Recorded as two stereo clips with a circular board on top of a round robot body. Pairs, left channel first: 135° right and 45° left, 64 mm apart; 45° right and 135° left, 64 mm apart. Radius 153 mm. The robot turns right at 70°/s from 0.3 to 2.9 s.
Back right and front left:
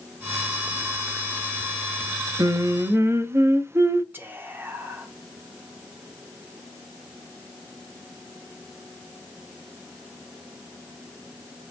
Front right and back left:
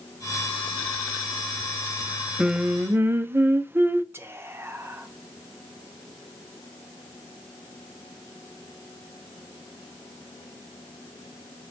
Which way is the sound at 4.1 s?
95° left.